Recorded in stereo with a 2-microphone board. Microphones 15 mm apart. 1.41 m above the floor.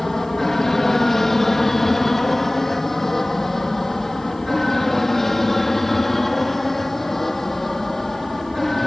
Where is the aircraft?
25° left (ahead or behind); by 8.9 s 20° left (ahead or behind).